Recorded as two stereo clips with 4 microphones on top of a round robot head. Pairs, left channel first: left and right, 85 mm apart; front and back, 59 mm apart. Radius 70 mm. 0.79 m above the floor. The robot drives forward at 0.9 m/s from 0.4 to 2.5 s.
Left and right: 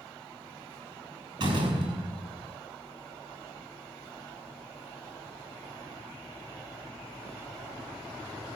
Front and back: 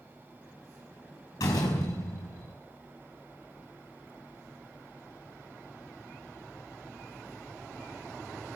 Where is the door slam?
45° right, 6.5 m; by 2.5 s 50° right, 6 m.